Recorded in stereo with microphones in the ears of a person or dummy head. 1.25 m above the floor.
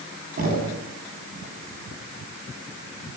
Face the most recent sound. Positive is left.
turn(degrees=-40)  # may be behind; listen again after turning